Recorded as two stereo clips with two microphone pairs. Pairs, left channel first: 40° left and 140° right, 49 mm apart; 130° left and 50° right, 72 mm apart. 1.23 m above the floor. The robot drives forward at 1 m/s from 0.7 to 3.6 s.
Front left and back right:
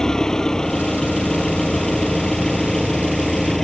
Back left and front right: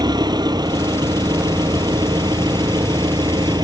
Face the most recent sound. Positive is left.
turn(degrees=-40)